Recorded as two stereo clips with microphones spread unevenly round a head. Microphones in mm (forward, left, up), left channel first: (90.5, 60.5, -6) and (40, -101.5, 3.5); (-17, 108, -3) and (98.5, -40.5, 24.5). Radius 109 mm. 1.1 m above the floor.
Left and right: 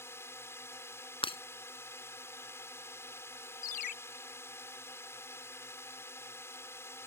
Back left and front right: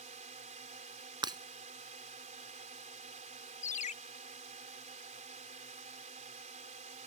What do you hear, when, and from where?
0.0 s a drone: straight ahead
1.2 s breaking glass: 15° left
3.6 s a ringtone: 85° left